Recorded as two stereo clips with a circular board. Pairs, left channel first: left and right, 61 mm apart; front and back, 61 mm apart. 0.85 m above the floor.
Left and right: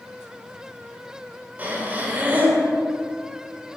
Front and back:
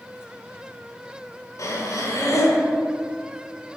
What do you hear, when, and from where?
1.6 s breathing: 30° right, 1.2 m